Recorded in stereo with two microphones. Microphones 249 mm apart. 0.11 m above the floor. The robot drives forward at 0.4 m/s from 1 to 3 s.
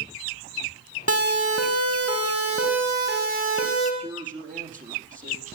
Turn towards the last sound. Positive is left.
turn(degrees=-30)  # may be behind; listen again after turning